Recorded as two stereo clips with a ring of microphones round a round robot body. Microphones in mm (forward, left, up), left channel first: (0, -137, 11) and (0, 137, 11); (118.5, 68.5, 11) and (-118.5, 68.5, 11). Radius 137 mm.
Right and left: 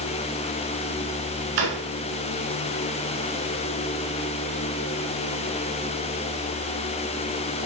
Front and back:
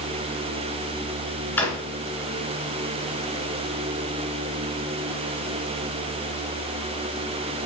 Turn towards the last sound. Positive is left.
turn(degrees=85)